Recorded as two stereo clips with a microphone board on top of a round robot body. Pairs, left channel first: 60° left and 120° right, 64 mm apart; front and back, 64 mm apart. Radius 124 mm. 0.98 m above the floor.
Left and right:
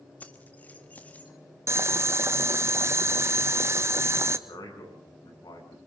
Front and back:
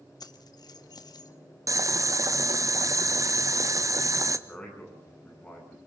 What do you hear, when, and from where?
0.2 s keys jangling: 10° right, 1.5 m
1.7 s boiling: 160° right, 1.4 m
4.5 s a man speaking: 75° left, 8.5 m